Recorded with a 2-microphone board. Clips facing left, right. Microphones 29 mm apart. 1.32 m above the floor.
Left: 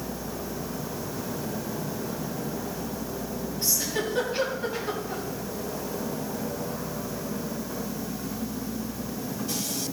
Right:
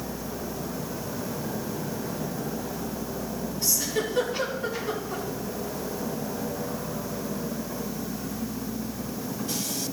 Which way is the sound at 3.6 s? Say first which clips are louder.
Right 1 dB; 50° left (ahead or behind).